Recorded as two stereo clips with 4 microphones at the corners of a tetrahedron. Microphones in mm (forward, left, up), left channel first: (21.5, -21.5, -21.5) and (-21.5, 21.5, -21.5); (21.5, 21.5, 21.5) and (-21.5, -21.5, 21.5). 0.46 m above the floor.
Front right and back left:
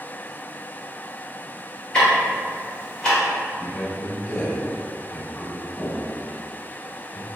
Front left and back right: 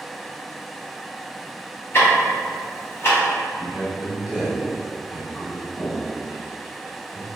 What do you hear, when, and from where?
1.9 s ticking: 30° left, 1.7 m
3.6 s a man speaking: 60° right, 1.0 m